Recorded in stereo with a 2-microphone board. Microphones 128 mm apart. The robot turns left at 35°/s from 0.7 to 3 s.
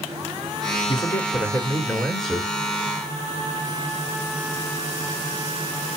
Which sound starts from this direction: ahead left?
A man speaking, at 0.9 s.